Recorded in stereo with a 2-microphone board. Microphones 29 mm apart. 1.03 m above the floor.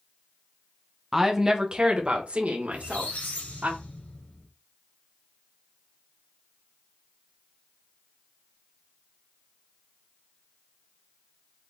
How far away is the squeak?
About 2.5 m.